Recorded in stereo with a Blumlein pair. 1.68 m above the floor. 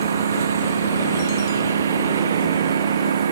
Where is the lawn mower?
65° right.